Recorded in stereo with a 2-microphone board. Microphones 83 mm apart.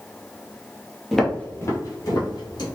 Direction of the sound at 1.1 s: 5° left (ahead or behind).